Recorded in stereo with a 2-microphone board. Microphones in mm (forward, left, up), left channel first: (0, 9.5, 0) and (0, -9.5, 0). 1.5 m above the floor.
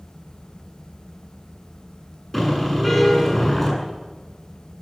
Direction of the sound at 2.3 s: 5° left (ahead or behind).